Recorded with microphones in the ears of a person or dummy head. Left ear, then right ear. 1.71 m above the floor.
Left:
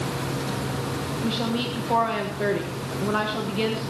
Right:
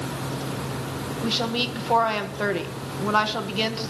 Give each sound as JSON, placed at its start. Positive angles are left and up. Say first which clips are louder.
{"t": 1.2, "sound": "a woman speaking", "louder": "right 4 dB", "side_deg": -45, "distance_m": 1.6}